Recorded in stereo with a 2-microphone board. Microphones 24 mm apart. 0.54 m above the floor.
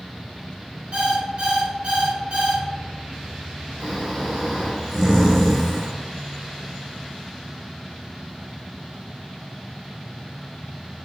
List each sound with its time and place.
0.9 s an alarm clock: 60° right (ahead or behind), 1.1 m
3.8 s snoring: 15° right (ahead or behind), 0.8 m